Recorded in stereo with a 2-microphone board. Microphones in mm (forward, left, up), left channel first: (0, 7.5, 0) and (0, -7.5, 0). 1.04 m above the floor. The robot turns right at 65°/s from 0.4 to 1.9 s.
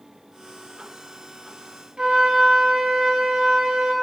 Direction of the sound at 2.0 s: 85° right.